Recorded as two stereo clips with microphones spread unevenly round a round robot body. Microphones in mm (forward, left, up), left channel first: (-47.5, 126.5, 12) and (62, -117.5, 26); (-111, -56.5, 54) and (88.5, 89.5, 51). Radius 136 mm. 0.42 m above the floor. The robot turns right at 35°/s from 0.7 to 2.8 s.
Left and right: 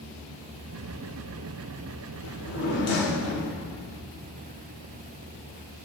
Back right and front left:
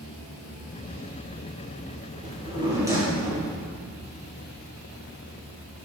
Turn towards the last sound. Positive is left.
turn(degrees=115)